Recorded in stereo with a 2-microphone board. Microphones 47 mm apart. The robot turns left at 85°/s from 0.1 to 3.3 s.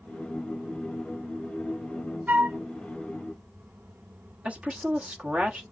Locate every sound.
2.3 s a flute: 40° right (ahead or behind), 0.7 m; by 2.6 s 50° right (ahead or behind), 0.7 m
4.5 s a woman speaking: 30° right (ahead or behind), 1.1 m